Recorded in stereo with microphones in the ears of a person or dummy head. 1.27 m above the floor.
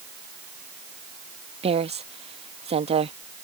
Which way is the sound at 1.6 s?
30° right (ahead or behind).